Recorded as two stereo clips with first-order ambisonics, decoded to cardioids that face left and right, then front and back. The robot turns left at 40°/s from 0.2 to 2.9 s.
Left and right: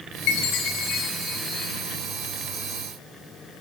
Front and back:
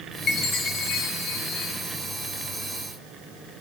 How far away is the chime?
About 2.5 m.